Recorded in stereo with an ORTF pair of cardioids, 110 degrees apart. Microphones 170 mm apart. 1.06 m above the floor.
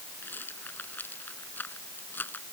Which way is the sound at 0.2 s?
10° left.